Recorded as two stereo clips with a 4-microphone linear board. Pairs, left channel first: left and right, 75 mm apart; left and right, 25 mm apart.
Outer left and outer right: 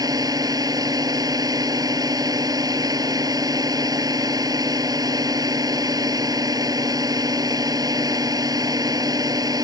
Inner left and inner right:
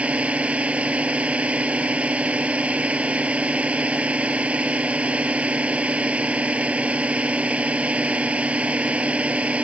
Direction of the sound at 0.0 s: 55° right (ahead or behind).